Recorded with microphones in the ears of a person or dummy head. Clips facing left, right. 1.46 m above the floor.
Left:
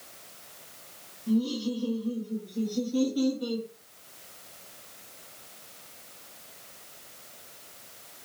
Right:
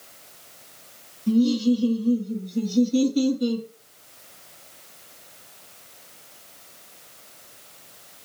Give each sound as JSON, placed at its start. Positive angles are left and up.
{"t": 1.3, "sound": "laughter", "side_deg": -30, "distance_m": 0.6}